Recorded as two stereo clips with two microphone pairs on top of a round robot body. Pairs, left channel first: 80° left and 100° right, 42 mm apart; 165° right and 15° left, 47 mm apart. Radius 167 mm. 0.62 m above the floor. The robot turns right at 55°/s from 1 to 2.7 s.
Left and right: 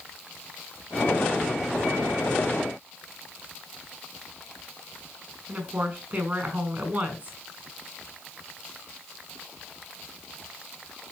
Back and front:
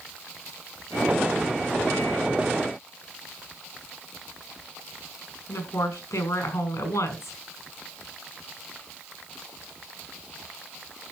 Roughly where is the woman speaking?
Behind right.